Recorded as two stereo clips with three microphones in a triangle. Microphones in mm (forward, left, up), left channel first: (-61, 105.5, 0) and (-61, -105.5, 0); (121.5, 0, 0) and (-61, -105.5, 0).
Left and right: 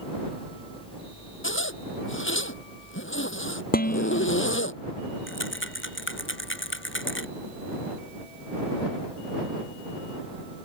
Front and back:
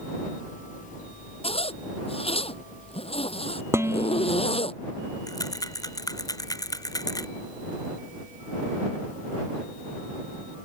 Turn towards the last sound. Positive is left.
turn(degrees=100)